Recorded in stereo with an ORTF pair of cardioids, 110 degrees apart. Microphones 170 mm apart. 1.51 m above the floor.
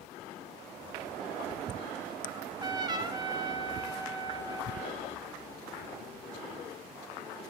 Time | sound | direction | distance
2.3 | a trumpet | 25° right | 1.8 m